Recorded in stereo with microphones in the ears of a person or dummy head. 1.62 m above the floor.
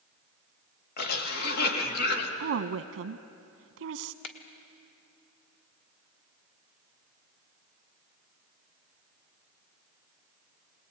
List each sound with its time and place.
1.0 s a cough: 55° left (ahead or behind), 3.5 m
2.4 s a woman speaking: 65° right (ahead or behind), 1.2 m
4.2 s a finger snap: 65° left (ahead or behind), 1.8 m